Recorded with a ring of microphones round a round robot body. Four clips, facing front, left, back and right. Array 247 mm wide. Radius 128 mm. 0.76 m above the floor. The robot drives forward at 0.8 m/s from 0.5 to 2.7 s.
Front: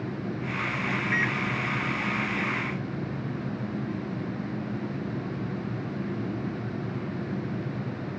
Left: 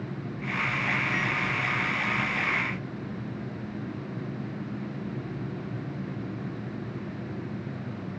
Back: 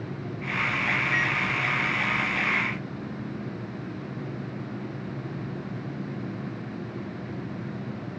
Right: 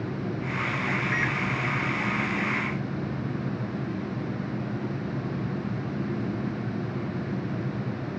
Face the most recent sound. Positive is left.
turn(degrees=-105)